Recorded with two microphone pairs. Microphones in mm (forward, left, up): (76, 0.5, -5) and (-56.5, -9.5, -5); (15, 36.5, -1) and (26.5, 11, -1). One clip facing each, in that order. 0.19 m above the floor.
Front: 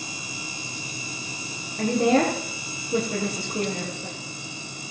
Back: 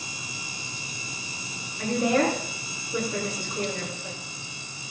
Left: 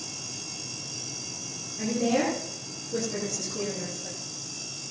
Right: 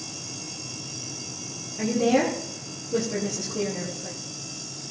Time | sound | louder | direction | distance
1.8 | a woman speaking | front 3 dB, right 4 dB | 5° left | 4.5 m